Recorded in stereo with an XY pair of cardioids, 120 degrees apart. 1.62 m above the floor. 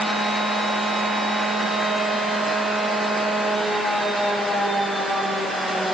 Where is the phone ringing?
I don't hear a phone ringing.